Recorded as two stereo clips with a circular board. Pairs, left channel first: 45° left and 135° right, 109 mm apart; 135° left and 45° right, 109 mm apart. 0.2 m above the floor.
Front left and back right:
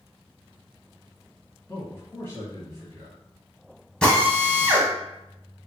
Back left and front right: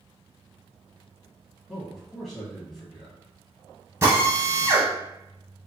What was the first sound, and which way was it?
A man speaking, 50° left.